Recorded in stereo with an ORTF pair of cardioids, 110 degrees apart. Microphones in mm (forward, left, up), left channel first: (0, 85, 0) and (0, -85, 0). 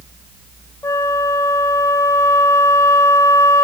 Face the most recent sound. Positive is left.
turn(degrees=20)